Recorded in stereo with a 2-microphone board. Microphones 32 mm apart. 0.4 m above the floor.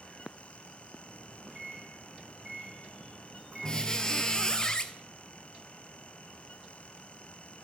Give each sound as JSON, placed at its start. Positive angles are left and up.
{"t": 1.0, "sound": "a microwave", "side_deg": -20, "distance_m": 4.0}
{"t": 3.6, "sound": "a squeak", "side_deg": 20, "distance_m": 0.6}